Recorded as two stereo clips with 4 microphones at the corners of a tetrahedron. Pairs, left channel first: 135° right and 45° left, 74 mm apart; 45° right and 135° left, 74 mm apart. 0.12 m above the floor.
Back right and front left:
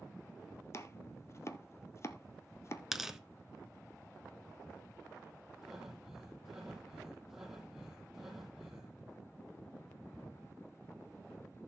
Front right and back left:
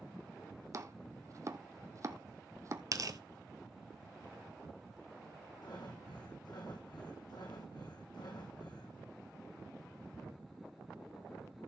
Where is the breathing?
40° right, 3 m.